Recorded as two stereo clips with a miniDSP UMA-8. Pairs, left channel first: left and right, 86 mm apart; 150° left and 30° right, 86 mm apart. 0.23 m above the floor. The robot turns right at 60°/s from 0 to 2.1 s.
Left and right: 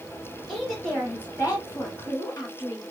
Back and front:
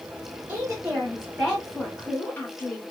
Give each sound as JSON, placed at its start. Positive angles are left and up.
{"t": 0.5, "sound": "a woman speaking", "azimuth_deg": 5, "distance_m": 1.2}